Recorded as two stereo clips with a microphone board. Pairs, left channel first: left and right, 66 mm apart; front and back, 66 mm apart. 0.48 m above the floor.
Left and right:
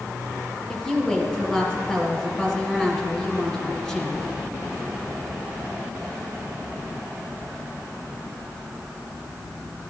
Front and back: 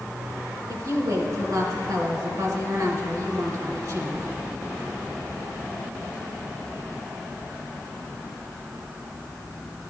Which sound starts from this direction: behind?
A woman speaking, at 0.7 s.